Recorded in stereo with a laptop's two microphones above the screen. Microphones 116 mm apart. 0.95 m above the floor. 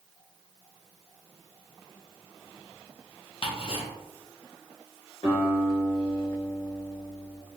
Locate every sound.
3.4 s ticking: 55° left (ahead or behind), 0.9 m
5.2 s a guitar: 40° left (ahead or behind), 1.7 m